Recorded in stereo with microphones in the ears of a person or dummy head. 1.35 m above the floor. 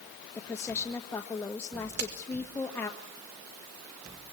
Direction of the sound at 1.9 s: 55° right (ahead or behind).